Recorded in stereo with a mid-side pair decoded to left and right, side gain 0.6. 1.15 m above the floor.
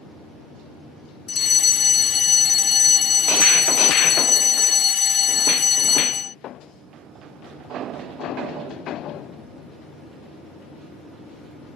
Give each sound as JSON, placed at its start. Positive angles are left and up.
{"t": 1.3, "sound": "a fire alarm", "azimuth_deg": 40}